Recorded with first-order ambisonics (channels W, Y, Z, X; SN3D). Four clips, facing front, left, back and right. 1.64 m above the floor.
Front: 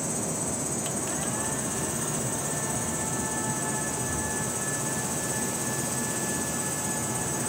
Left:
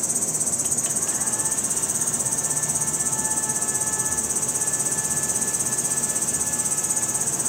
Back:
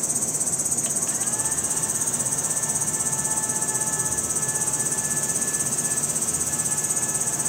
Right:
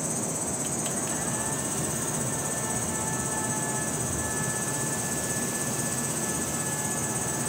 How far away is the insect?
About 0.8 m.